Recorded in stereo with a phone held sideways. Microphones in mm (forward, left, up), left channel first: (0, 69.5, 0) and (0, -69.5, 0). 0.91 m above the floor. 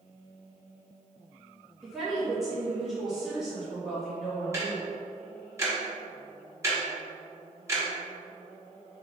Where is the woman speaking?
Centre (ahead or behind), 1.6 m.